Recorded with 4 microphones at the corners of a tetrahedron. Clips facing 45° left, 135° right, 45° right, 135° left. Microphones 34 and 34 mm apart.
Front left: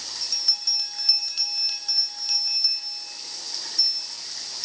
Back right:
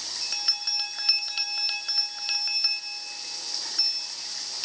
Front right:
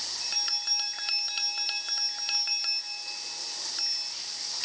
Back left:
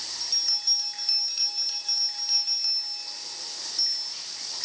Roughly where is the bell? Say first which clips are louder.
Front left 3 dB, back left 4 dB; right.